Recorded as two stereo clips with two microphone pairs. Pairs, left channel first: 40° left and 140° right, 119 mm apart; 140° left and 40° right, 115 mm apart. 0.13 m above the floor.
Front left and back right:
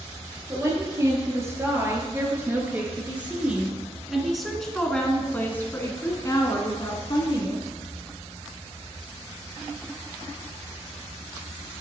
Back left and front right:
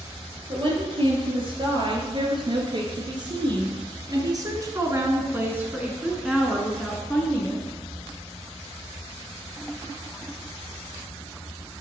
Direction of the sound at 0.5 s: 80° right.